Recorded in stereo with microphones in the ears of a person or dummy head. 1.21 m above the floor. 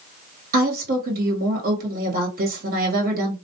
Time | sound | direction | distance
0.5 | a woman speaking | 50° right (ahead or behind) | 1.8 m